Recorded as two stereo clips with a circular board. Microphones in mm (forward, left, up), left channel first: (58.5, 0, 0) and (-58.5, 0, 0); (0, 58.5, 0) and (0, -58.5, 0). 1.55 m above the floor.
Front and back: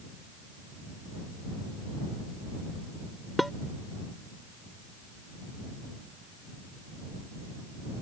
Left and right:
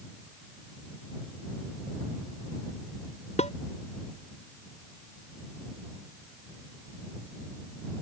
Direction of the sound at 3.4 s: 90° left.